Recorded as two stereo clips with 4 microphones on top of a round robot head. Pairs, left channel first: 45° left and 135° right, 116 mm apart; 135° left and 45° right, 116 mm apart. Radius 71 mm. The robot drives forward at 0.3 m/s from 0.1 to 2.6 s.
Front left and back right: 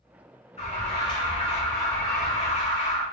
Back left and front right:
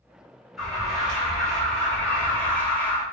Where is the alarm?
40° left, 2 m; by 3.0 s 60° left, 1.7 m.